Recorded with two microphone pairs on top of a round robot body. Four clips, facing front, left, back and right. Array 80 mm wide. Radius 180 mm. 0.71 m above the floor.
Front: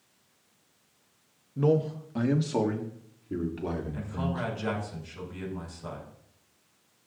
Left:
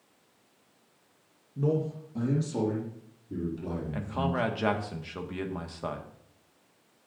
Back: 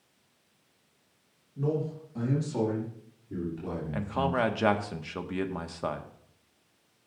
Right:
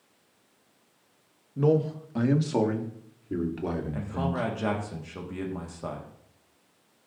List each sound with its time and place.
1.6 s a man speaking: 45° right, 1.6 m; by 4.4 s 65° right, 4 m
3.9 s a man speaking: 170° left, 1.6 m